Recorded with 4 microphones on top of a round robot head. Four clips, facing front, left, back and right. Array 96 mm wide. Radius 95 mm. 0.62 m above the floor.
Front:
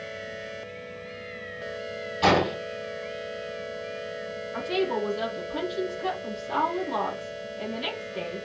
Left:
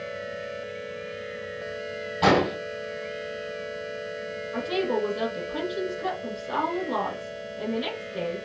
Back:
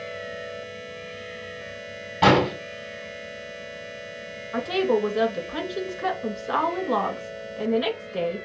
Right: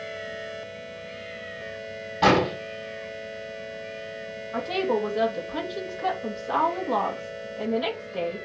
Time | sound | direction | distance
2.2 | an explosion | 160° right | 3.5 m
4.5 | a woman speaking | 170° right | 2.5 m